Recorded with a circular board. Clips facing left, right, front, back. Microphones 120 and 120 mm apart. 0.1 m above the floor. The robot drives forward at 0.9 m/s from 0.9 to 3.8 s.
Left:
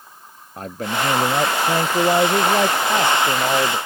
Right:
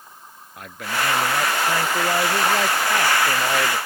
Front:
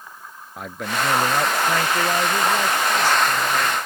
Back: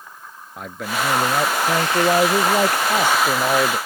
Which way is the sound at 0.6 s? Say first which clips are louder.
Left 3 dB, even; 90° left.